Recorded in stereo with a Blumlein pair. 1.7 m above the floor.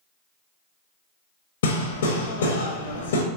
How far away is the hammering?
About 0.9 m.